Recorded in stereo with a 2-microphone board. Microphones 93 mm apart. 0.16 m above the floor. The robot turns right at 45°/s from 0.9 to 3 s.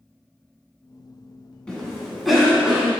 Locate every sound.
1.7 s a cough: 10° left (ahead or behind), 1.2 m; by 2.9 s 10° right (ahead or behind), 1.2 m